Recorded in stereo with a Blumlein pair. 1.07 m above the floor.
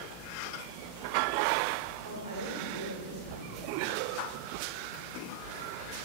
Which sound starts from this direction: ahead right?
A man speaking, at 2.0 s.